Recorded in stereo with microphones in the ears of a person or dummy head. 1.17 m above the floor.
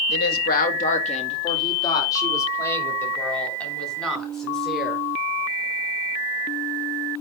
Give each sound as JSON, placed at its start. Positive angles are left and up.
{"t": 0.1, "sound": "a woman speaking", "side_deg": 55, "distance_m": 1.6}